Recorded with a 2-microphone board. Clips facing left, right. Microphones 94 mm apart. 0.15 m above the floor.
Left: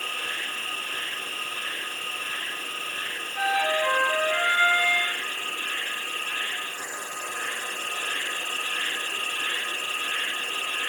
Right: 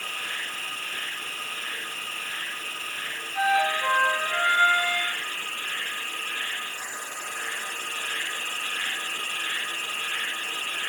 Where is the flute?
25° right (ahead or behind), 2.5 m.